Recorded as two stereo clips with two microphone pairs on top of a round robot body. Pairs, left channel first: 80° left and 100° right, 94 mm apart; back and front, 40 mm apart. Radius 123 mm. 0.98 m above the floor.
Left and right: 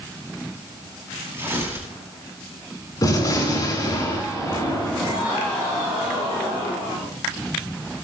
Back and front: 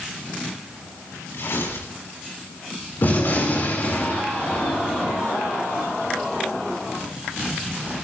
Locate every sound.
1.3 s tearing paper: 170° right, 9.5 m
3.0 s a gunshot: 135° left, 7.5 m